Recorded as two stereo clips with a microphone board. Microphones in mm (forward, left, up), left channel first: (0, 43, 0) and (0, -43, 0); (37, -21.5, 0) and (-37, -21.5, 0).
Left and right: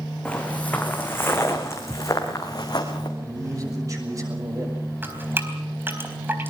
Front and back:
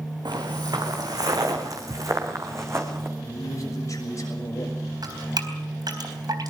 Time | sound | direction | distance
0.2 | footsteps | 170° left | 4 m
3.2 | a man speaking | 40° right | 6.5 m
5.0 | dripping | 155° right | 3.5 m